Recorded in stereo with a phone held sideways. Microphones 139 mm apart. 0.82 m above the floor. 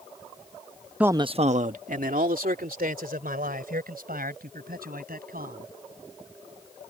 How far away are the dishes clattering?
No dishes clattering in this recording.